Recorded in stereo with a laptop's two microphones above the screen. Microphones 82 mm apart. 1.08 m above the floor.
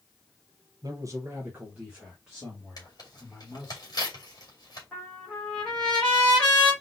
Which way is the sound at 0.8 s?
55° right (ahead or behind).